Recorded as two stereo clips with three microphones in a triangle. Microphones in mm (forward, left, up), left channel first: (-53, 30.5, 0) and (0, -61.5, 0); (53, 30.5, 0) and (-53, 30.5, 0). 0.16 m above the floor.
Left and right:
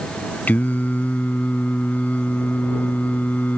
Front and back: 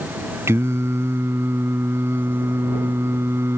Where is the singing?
170° left.